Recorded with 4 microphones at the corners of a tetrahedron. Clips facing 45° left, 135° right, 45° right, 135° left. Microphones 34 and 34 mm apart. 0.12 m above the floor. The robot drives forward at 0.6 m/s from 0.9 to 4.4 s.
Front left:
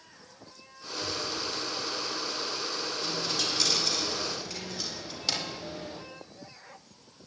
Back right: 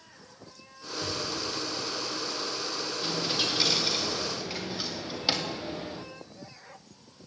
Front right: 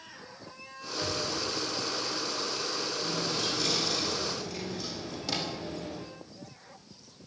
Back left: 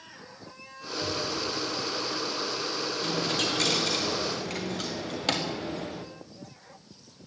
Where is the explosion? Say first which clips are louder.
Back right 1 dB, back left 2 dB; 85° right, 5.5 m; by 2.1 s 95° right, 5.5 m.